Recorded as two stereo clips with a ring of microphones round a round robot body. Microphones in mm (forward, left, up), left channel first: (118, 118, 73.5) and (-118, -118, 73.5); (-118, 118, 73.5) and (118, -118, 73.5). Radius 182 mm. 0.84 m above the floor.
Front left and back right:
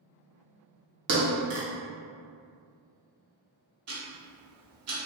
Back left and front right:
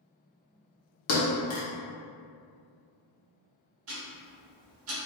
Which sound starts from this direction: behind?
A thud, at 1.1 s.